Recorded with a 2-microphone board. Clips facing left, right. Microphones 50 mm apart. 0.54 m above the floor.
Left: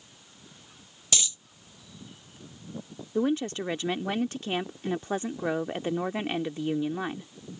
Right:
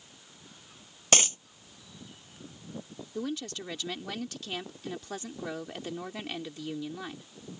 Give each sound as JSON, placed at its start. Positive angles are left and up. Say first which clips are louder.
{"t": 1.1, "sound": "a dropped coin", "louder": "right 6 dB", "side_deg": -50}
{"t": 3.1, "sound": "a woman speaking", "louder": "left 9 dB", "side_deg": 30}